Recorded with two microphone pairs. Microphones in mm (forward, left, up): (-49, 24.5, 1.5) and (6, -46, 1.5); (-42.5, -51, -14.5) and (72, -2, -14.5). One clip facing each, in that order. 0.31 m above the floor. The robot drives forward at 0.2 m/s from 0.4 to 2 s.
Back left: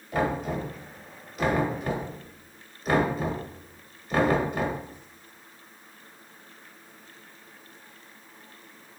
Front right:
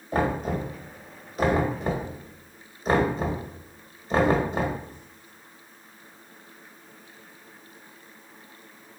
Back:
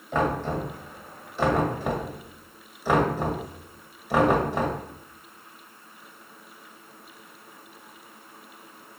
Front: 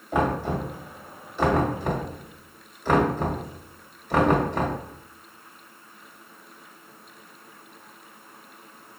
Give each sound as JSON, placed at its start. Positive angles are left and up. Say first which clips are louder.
{"t": 0.1, "sound": "knocking", "louder": "front right 2 dB, front 1 dB", "azimuth_deg": -50, "distance_m": 1.0}